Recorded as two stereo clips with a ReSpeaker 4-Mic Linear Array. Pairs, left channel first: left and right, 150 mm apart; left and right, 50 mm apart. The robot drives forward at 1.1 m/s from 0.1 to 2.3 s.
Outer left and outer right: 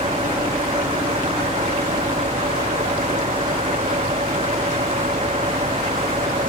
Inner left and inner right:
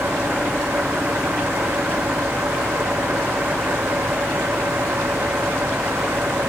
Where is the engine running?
40° right (ahead or behind); by 6.5 s 45° right (ahead or behind).